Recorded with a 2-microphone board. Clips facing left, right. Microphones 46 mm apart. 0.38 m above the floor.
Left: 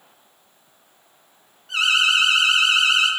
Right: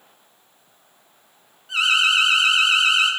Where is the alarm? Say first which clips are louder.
Even; 5° right (ahead or behind), 3 m.